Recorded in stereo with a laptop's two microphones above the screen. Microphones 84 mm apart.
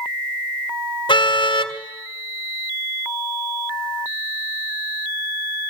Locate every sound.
1.1 s a car horn: 80° left, 2.5 m